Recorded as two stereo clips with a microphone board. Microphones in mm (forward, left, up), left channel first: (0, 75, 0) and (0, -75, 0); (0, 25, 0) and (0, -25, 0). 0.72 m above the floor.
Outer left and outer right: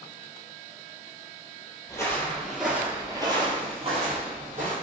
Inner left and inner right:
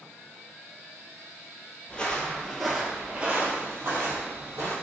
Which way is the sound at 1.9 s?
20° left (ahead or behind).